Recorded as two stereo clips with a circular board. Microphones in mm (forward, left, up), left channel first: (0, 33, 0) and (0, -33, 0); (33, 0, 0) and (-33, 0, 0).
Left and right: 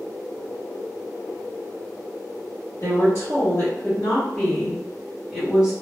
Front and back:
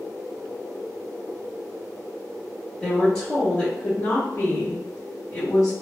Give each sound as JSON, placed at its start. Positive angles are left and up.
{"t": 2.8, "sound": "a woman speaking", "azimuth_deg": 70, "distance_m": 1.4}